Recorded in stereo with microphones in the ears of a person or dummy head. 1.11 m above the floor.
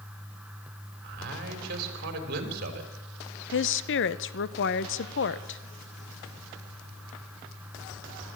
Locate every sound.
1.0 s a man speaking: 55° right (ahead or behind), 4 m
3.5 s a woman speaking: 55° left (ahead or behind), 0.9 m